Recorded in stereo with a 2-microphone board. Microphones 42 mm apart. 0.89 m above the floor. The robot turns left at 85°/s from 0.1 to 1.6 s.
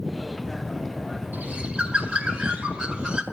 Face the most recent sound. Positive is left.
turn(degrees=-20)  # may be behind; listen again after turning